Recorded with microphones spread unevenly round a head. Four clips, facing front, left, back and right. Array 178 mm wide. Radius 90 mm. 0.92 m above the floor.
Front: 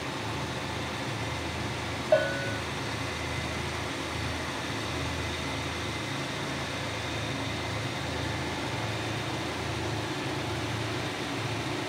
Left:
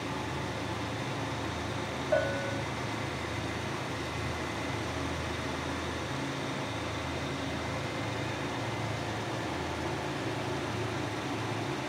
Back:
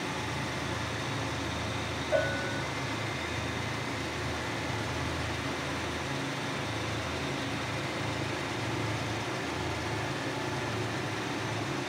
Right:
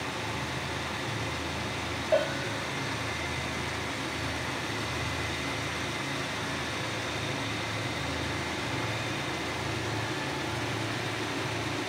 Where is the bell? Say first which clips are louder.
Right 2 dB, front 4 dB; 15° right, 1.3 m.